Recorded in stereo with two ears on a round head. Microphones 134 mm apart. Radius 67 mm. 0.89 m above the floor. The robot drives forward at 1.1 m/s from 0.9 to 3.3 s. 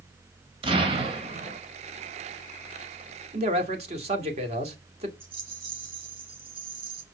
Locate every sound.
0.6 s an explosion: 35° right (ahead or behind), 2 m; by 1.6 s 55° right (ahead or behind), 1.5 m
3.3 s a man speaking: 50° right (ahead or behind), 2.5 m
5.2 s a rattle: 40° right (ahead or behind), 4 m